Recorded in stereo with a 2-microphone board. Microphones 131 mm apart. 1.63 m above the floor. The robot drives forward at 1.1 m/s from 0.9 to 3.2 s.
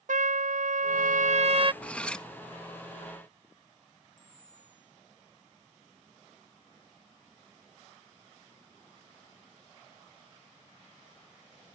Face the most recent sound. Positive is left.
turn(degrees=-80)